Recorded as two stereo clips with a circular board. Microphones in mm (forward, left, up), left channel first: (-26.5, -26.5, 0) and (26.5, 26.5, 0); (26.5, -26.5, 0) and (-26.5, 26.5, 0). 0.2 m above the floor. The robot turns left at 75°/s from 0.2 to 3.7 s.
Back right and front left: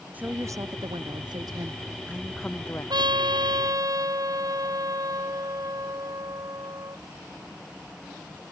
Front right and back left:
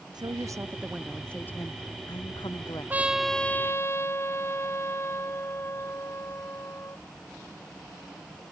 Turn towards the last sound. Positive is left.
turn(degrees=10)